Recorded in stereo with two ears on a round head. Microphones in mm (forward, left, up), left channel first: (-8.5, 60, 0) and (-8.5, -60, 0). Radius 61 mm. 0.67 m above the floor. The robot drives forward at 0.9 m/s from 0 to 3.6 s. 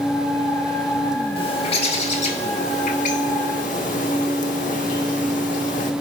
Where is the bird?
40° left (ahead or behind), 3 m; by 5.9 s 65° left (ahead or behind), 2.5 m.